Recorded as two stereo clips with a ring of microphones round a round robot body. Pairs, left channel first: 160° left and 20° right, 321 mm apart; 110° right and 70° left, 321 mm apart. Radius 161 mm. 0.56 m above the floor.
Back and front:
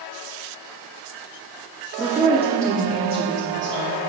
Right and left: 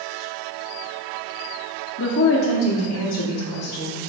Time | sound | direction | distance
2.0 | a woman speaking | 105° right | 0.8 m